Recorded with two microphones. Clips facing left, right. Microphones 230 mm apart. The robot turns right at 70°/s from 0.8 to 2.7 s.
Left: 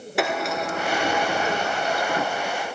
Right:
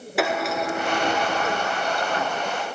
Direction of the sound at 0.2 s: Centre (ahead or behind).